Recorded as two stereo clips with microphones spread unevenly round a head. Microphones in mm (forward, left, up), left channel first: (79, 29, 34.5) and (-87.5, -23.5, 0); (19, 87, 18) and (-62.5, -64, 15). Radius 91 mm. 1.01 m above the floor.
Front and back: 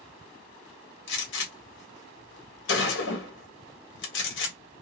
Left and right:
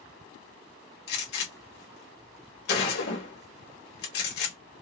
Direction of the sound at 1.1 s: 40° left.